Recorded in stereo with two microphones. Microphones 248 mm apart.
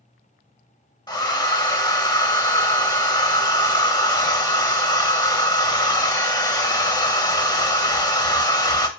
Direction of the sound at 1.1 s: 15° left (ahead or behind).